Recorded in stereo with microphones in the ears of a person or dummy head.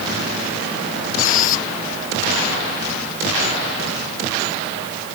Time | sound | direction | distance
1.2 | a squeak | 50° left (ahead or behind) | ?